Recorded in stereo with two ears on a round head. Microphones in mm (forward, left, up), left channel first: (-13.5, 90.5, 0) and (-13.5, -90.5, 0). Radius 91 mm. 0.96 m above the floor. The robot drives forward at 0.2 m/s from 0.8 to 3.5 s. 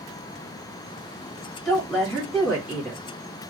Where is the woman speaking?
10° left (ahead or behind), 1.5 m.